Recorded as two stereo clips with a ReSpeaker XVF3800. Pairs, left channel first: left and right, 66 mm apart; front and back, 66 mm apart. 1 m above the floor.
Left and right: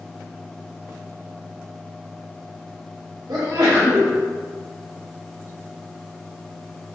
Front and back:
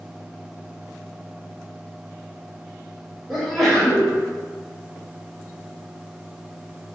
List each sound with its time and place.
3.3 s a sneeze: 90° right, 1.8 m